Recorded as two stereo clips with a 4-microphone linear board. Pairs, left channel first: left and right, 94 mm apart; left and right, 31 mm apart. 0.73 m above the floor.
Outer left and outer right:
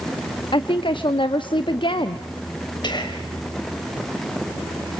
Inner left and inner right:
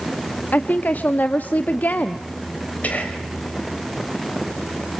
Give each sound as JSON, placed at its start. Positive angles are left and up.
{"t": 0.5, "sound": "a woman speaking", "side_deg": 60, "distance_m": 0.8}
{"t": 2.8, "sound": "whispering", "side_deg": 50, "distance_m": 4.0}